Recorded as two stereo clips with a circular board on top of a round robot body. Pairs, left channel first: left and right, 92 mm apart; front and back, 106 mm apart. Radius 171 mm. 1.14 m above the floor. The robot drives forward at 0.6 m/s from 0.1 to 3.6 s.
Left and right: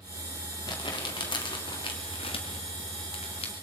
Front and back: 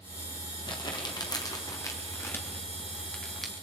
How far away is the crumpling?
About 2.5 m.